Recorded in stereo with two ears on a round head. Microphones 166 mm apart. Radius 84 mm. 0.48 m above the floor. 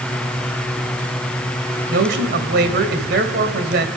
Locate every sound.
1.9 s a man speaking: 55° right (ahead or behind), 2 m